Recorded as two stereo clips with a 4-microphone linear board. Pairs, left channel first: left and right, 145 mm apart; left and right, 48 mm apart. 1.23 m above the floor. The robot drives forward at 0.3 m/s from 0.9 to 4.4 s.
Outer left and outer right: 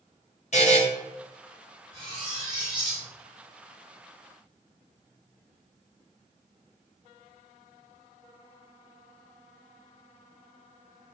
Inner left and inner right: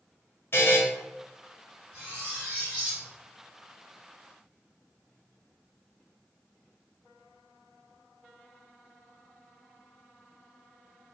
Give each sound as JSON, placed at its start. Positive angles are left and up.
{"t": 0.5, "sound": "a buzzer", "side_deg": 50, "distance_m": 1.0}
{"t": 1.9, "sound": "cutlery clinking", "side_deg": -35, "distance_m": 1.9}